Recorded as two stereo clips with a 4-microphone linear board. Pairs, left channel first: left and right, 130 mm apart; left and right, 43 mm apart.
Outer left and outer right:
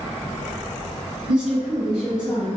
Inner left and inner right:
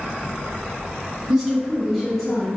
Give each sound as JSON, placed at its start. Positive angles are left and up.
{"t": 1.3, "sound": "a woman speaking", "side_deg": -5, "distance_m": 1.2}